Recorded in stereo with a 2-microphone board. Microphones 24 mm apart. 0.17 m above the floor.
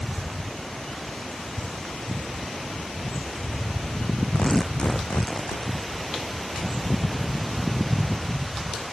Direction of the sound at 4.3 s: 45° left (ahead or behind).